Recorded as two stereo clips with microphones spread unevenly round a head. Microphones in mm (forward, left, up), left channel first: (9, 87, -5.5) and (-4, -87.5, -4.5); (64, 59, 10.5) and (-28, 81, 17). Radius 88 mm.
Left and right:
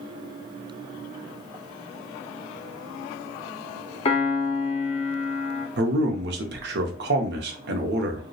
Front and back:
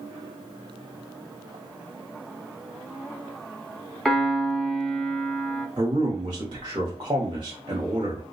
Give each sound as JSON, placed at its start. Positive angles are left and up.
{"t": 4.0, "sound": "a piano", "azimuth_deg": 80, "distance_m": 0.6}
{"t": 5.8, "sound": "a man speaking", "azimuth_deg": -125, "distance_m": 0.6}